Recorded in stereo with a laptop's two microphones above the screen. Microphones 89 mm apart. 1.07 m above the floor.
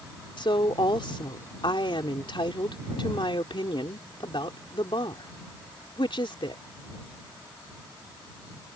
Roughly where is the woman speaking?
Left.